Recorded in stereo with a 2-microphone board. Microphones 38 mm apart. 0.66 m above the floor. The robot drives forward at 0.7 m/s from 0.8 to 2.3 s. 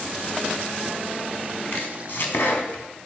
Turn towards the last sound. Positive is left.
turn(degrees=65)  # may be behind; listen again after turning